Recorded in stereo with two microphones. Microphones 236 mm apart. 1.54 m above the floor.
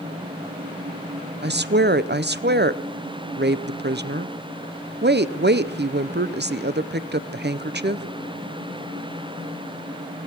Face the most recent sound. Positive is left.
turn(degrees=-45)  # may be behind; listen again after turning